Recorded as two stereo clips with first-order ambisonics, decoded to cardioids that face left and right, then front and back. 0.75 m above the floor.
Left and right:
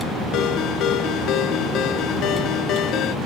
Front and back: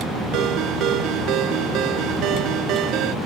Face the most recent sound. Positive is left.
turn(degrees=140)